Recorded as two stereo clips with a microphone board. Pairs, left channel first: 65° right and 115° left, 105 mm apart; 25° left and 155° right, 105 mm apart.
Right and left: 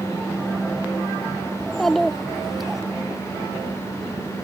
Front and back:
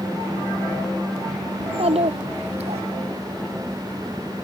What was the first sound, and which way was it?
A child speaking, 155° right.